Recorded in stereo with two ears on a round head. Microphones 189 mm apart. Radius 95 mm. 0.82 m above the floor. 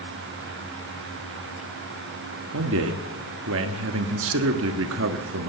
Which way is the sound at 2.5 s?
65° right (ahead or behind).